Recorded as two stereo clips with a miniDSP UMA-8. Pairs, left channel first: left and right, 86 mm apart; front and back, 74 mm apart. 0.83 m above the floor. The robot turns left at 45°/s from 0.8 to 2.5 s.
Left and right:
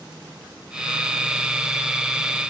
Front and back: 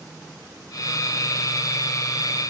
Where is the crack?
No crack in this recording.